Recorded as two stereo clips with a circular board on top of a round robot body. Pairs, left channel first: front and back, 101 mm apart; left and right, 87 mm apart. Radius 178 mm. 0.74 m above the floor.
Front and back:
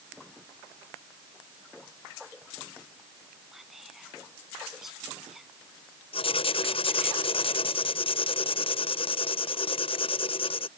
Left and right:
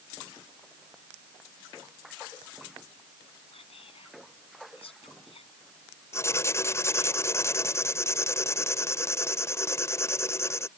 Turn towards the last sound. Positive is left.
turn(degrees=30)